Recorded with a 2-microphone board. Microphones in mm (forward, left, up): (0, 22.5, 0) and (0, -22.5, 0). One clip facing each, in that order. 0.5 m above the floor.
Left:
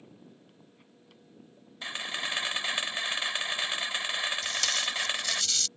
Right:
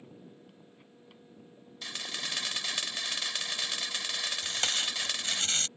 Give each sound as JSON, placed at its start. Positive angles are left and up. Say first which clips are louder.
{"t": 1.8, "sound": "a camera shutter", "louder": "left 4 dB", "side_deg": 25}
{"t": 4.4, "sound": "tape being pulled", "louder": "left 2 dB", "side_deg": -35}